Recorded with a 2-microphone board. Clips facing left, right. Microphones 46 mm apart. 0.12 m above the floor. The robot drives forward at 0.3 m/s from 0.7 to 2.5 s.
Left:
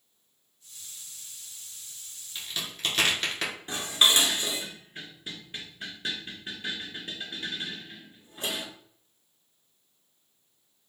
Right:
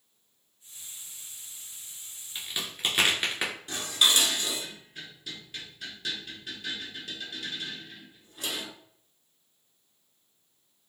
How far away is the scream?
I don't hear a scream.